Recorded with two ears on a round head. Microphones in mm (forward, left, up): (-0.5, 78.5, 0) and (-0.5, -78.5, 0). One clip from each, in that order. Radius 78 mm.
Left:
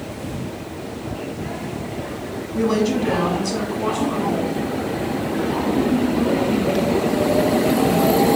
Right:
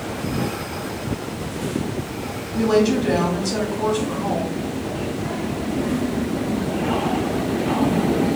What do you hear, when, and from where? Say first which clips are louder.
2.5 s a woman speaking: right 2 dB; 5° right (ahead or behind), 1.0 m